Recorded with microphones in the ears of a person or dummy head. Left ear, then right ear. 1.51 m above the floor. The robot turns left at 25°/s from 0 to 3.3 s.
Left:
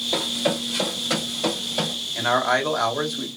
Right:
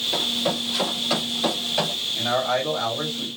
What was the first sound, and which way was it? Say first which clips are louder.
Running footsteps: even; 10° left (ahead or behind).